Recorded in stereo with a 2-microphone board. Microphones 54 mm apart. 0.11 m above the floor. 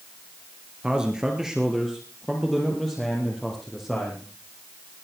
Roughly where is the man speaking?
Centre.